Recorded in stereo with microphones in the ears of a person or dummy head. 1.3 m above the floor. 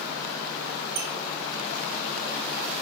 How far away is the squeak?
About 0.9 m.